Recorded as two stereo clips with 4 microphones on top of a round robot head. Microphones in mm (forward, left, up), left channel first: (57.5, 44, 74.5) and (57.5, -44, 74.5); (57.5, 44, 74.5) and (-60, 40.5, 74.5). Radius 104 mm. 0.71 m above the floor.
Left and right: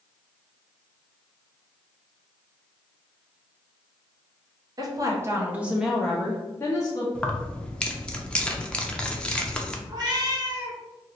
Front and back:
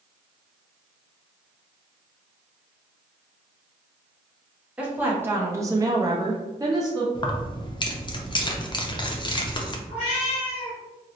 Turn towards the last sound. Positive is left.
turn(degrees=-50)